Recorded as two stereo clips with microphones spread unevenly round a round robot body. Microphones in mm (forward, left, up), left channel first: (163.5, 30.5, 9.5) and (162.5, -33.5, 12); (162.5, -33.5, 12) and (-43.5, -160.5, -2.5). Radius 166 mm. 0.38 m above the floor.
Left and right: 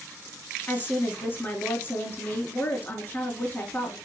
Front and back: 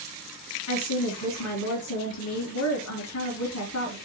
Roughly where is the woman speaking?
Ahead.